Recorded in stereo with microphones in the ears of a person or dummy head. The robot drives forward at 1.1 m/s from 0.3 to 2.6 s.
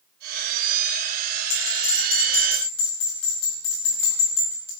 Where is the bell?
40° left (ahead or behind), 4 m; by 4.7 s 30° left (ahead or behind), 5 m.